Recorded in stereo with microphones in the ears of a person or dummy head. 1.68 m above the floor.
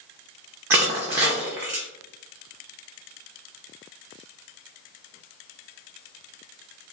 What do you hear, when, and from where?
0.7 s crushing: 15° right (ahead or behind), 0.6 m